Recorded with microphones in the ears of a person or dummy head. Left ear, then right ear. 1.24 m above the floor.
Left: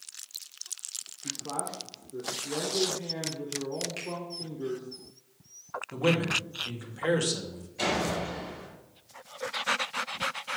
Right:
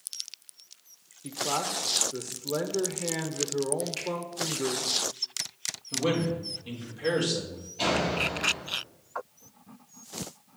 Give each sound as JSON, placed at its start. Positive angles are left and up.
{"t": 1.2, "sound": "a man speaking", "side_deg": -45, "distance_m": 0.8}
{"t": 4.0, "sound": "a finger snap", "side_deg": 20, "distance_m": 2.0}
{"t": 5.9, "sound": "a man speaking", "side_deg": 70, "distance_m": 2.0}
{"t": 7.8, "sound": "a door slam", "side_deg": 60, "distance_m": 4.5}